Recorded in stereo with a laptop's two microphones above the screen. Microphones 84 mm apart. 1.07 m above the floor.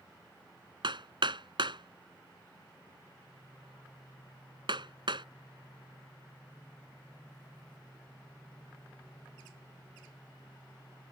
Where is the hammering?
70° right (ahead or behind).